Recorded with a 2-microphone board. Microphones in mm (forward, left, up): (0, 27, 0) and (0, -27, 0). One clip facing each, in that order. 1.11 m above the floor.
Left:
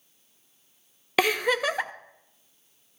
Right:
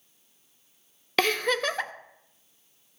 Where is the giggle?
15° left (ahead or behind), 0.6 m.